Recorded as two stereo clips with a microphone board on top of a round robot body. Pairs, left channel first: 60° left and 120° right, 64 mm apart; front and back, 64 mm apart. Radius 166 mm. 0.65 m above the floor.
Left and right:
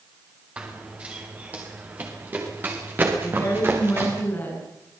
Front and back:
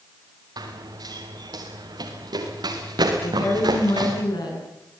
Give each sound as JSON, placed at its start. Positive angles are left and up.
{"t": 0.6, "sound": "running footsteps", "azimuth_deg": 165, "distance_m": 6.0}
{"t": 3.2, "sound": "a woman speaking", "azimuth_deg": -5, "distance_m": 9.5}